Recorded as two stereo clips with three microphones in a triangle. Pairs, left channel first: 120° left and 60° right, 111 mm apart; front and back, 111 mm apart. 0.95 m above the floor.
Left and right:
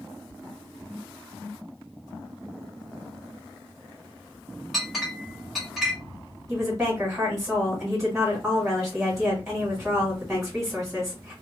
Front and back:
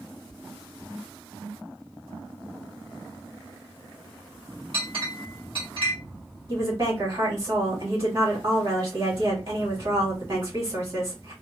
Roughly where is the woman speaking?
Behind right.